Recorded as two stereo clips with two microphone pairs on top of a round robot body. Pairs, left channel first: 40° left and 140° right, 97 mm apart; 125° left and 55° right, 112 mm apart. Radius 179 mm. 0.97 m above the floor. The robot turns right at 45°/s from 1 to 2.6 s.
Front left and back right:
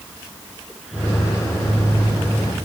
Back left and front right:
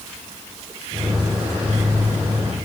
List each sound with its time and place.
Only background noise.